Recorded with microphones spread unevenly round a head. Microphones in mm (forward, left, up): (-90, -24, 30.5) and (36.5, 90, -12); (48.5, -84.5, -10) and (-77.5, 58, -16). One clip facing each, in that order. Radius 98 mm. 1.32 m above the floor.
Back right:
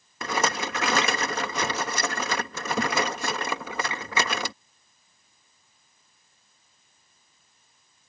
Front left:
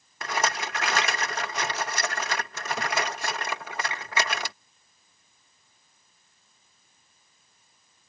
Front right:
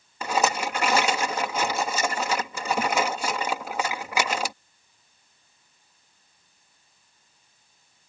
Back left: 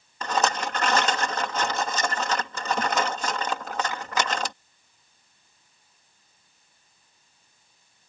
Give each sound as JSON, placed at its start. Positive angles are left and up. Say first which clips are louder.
{"t": 0.2, "sound": "a rattle", "louder": "back right 2 dB, front right 1 dB", "azimuth_deg": -130}